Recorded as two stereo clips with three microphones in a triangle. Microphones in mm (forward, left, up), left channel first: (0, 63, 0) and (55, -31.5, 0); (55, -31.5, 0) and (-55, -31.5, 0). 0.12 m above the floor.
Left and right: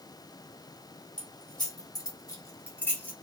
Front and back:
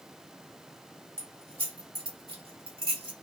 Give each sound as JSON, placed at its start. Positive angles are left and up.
{"t": 1.2, "sound": "keys jangling", "azimuth_deg": 150, "distance_m": 1.7}